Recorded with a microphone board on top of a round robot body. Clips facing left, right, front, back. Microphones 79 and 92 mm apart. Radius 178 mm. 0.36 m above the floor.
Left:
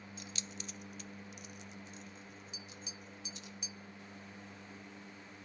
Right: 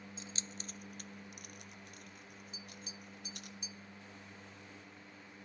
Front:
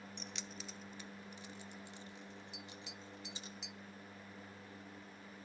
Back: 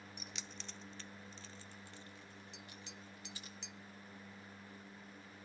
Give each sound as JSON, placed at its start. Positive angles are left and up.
{"t": 0.2, "sound": "keys jangling", "azimuth_deg": -105, "distance_m": 0.6}
{"t": 2.5, "sound": "tapping", "azimuth_deg": 85, "distance_m": 0.6}